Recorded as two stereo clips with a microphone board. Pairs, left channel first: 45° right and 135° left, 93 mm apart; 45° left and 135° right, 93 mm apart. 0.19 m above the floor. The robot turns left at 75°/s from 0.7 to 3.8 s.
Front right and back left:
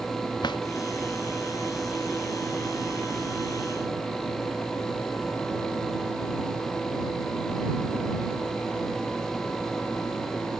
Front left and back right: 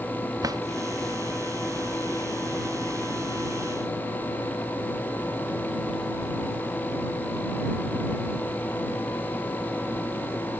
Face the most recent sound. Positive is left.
turn(degrees=45)